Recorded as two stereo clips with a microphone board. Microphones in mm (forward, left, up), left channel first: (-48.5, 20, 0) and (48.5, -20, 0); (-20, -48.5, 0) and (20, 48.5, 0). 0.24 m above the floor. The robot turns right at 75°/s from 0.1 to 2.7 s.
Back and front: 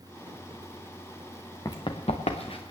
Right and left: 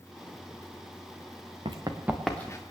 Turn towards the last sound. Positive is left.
turn(degrees=-160)